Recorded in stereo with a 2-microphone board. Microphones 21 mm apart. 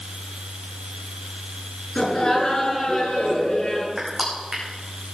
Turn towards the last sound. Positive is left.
turn(degrees=-15)  # may be behind; listen again after turning